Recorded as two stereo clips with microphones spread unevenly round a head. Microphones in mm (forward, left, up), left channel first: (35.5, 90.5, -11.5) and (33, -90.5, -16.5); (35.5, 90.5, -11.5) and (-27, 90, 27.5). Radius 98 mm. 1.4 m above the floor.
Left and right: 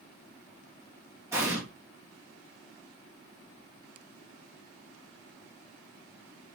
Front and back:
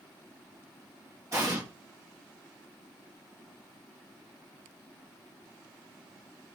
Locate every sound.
1.3 s an explosion: 170° right, 0.8 m